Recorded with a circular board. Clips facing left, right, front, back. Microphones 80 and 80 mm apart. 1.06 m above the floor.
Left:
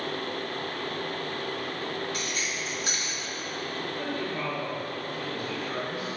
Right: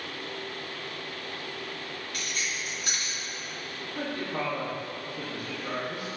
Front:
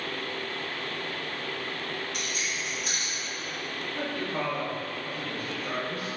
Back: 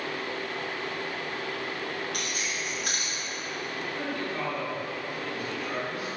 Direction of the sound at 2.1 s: 155° left.